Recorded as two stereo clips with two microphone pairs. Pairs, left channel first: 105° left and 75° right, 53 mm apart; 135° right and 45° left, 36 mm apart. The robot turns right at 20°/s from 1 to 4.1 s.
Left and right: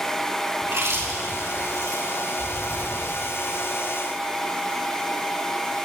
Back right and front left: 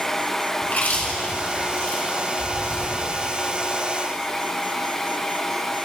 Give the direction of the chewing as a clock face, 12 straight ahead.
4 o'clock.